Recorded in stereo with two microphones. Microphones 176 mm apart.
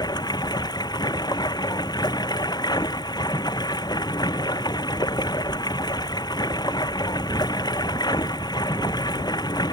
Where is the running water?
25° left (ahead or behind).